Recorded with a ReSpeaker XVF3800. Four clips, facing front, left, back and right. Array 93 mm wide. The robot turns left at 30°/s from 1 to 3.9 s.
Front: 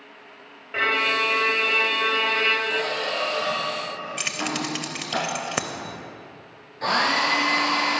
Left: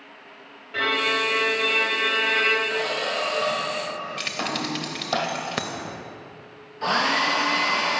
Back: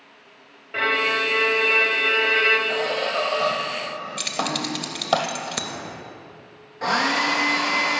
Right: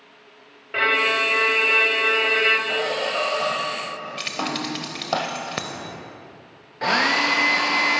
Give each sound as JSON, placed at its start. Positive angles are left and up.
{"t": 0.7, "sound": "a violin", "azimuth_deg": -80, "distance_m": 1.1}
{"t": 2.7, "sound": "a squeak", "azimuth_deg": -115, "distance_m": 1.6}
{"t": 4.2, "sound": "keys jangling", "azimuth_deg": 5, "distance_m": 0.6}
{"t": 6.8, "sound": "a hair dryer", "azimuth_deg": -105, "distance_m": 1.3}